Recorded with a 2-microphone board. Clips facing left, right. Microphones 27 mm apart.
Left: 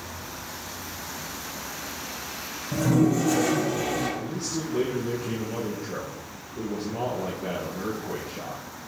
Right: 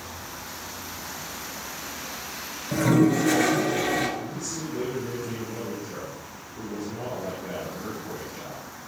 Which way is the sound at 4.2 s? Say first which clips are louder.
Left 2 dB; 50° left (ahead or behind).